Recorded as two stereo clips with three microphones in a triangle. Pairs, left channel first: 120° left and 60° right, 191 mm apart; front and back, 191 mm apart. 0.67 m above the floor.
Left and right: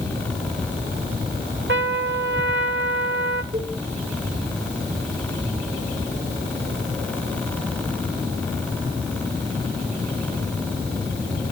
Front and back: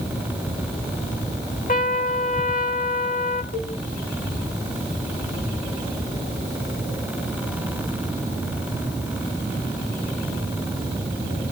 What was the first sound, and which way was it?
A trumpet, 45° right.